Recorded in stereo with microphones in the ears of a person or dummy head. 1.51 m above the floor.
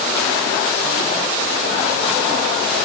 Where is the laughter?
No laughter in this recording.